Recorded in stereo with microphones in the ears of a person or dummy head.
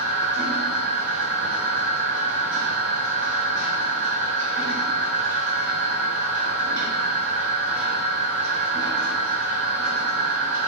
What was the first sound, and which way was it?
A machine running, 60° right (ahead or behind).